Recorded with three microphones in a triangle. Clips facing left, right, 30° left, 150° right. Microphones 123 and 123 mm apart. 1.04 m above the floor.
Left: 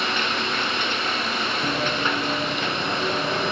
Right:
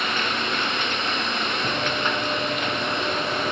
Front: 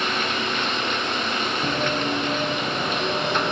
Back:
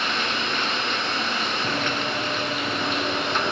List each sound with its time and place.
1.6 s running footsteps: 40° left, 6 m; by 3.5 s 60° left, 4.5 m